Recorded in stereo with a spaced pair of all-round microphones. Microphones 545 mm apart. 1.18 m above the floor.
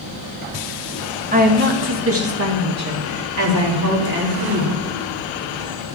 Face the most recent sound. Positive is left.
turn(degrees=-35)  # may be behind; listen again after turning